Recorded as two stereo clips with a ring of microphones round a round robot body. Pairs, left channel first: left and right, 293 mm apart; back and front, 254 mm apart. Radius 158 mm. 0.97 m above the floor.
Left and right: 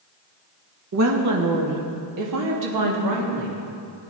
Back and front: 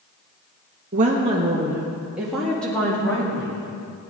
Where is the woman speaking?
60° right, 1.5 m; by 3.6 s 105° right, 2.5 m.